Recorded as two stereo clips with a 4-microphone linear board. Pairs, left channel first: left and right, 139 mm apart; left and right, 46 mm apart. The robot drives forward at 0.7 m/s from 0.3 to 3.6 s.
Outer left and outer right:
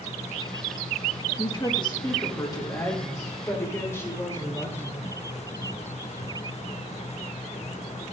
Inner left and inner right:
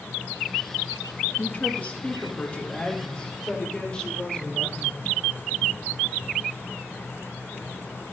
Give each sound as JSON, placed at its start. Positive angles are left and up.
{"t": 1.4, "sound": "a woman speaking", "side_deg": 35, "distance_m": 1.4}